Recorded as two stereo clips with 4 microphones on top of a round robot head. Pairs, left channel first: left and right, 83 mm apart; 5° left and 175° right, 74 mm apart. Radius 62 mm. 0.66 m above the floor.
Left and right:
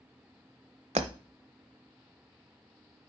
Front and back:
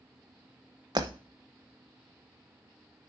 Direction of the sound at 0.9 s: 120° right.